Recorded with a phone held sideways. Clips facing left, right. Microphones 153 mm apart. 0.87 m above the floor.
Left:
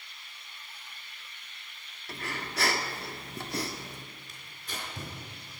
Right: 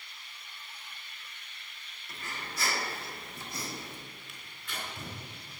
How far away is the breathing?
About 1.1 m.